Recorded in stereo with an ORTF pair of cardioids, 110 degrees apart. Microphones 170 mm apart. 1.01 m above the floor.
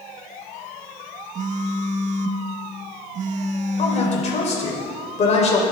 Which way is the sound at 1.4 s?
50° right.